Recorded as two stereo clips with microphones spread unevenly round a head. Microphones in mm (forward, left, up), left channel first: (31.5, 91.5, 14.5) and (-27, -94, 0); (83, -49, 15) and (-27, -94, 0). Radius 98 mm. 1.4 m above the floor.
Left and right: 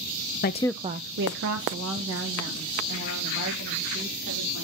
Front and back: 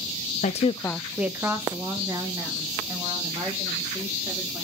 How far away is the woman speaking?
About 0.5 m.